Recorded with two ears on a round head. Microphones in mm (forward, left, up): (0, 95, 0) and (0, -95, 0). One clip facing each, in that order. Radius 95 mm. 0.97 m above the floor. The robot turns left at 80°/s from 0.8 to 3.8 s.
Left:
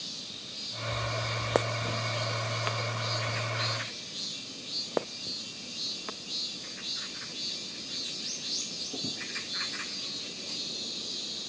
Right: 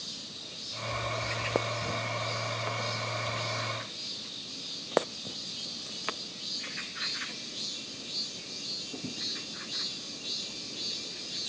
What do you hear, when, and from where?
Only background noise.